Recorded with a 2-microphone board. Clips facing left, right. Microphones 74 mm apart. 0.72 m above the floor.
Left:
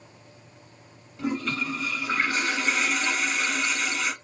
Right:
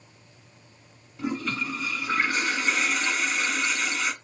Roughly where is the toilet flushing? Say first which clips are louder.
Left 1 dB; centre.